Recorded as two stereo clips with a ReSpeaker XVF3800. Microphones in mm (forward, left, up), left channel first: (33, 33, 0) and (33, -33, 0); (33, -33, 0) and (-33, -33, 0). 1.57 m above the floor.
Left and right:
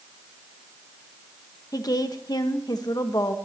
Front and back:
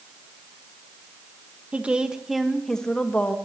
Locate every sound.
1.7 s a woman speaking: 110° left, 1.6 m; by 3.4 s 65° left, 1.7 m